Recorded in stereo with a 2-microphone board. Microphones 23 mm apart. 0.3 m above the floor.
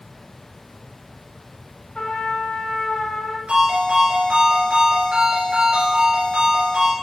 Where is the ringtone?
70° right (ahead or behind), 3.5 m.